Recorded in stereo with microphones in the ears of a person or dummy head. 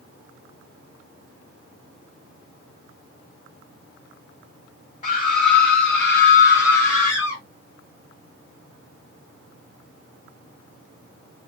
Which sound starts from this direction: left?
A scream, at 5.0 s.